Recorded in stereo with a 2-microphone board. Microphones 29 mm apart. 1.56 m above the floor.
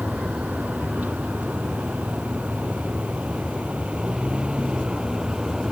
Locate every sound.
0.0 s a vehicle: 80° right; by 5.7 s 25° right (ahead or behind)